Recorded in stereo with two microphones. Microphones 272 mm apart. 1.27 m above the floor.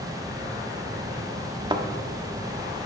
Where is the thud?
15° right (ahead or behind), 0.8 m.